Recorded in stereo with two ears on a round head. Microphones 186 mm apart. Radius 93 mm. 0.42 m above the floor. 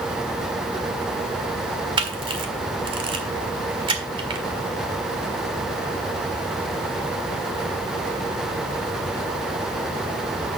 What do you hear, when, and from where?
2.0 s a camera shutter: 25° right (ahead or behind), 1.7 m